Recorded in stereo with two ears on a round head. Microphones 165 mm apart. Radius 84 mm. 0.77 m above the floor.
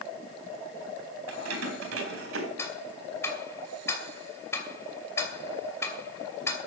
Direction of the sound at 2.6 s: 15° left (ahead or behind).